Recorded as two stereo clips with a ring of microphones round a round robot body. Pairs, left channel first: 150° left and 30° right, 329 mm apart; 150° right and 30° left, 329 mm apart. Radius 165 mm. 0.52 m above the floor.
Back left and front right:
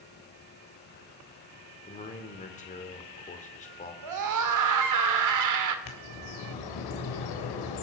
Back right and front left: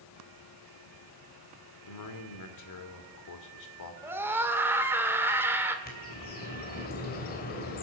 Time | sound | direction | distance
1.8 | a man speaking | 145° right | 2.0 m
4.0 | a scream | 55° right | 1.8 m
5.8 | a bird | 145° left | 3 m